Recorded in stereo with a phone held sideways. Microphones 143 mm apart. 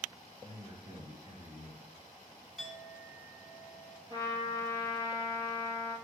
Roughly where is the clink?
Centre.